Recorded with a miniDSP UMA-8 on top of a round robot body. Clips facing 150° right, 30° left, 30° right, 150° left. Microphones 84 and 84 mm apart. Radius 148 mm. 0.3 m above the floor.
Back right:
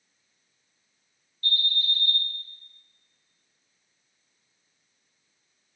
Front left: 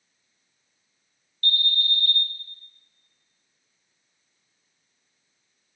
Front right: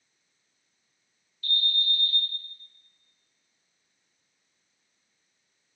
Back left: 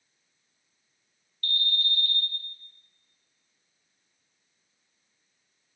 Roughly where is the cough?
No cough in this recording.